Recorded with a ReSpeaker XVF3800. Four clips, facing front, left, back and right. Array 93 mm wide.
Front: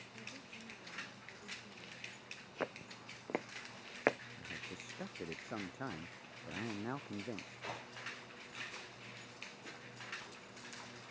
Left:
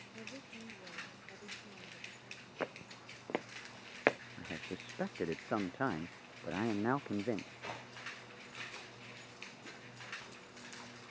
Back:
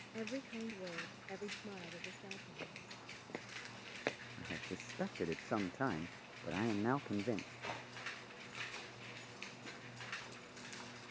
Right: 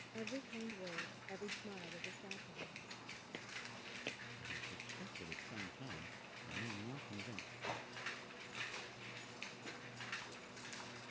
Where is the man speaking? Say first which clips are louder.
Left 5 dB, back 2 dB; 115° left.